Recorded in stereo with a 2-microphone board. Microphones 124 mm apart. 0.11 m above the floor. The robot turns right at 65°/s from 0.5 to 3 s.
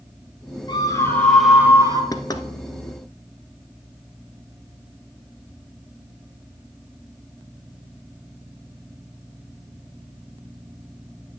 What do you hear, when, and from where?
0.7 s a scream: 135° left, 3 m; by 2.0 s 140° right, 3 m
2.1 s knocking: 30° left (ahead or behind), 1.0 m